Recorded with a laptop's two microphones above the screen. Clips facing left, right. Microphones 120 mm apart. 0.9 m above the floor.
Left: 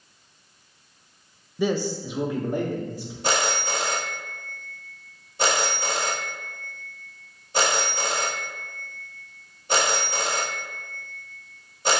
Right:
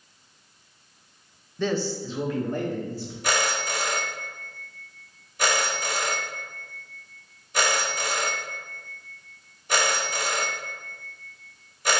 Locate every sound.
1.6 s a man speaking: 10° left (ahead or behind), 0.5 m; by 3.1 s 15° left (ahead or behind), 2 m
3.2 s a phone ringing: 25° left (ahead or behind), 0.7 m